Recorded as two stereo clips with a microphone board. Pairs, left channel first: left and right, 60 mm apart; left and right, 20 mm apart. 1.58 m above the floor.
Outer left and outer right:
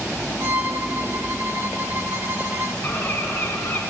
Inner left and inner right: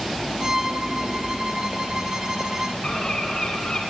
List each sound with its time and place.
0.4 s a violin: 40° right (ahead or behind), 2 m
2.8 s a bird: 25° left (ahead or behind), 9.5 m